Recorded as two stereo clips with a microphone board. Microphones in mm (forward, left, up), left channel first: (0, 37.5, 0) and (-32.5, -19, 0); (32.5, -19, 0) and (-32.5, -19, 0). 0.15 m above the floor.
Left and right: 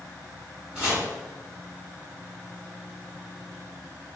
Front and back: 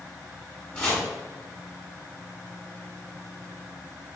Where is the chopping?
60° right, 1.8 m.